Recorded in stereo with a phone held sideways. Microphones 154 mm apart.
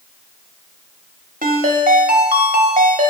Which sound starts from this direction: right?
A ringtone, at 1.4 s.